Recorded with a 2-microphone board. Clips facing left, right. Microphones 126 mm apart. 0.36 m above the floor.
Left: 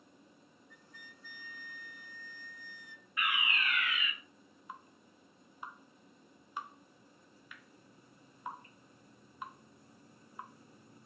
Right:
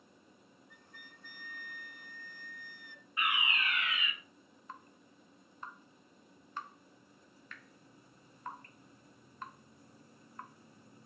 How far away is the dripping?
About 0.6 m.